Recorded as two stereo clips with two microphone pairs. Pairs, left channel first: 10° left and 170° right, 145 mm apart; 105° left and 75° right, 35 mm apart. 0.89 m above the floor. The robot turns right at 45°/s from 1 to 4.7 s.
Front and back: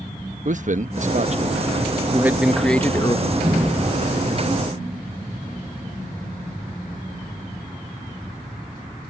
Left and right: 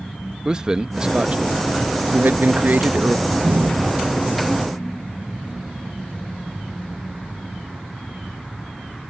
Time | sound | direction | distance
0.5 | a man speaking | 145° right | ?
3.2 | a door slam | 100° right | ?